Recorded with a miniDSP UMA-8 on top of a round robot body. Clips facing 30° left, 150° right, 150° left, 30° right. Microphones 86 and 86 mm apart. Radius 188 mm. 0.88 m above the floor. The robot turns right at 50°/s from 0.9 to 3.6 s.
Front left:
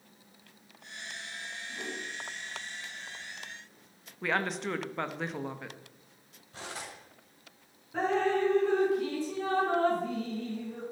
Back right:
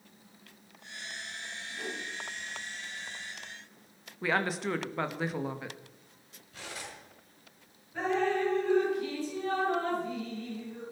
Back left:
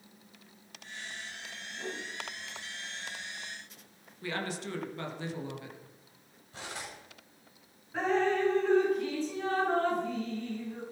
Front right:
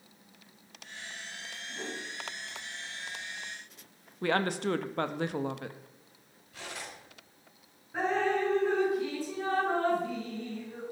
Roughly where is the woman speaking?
Ahead right.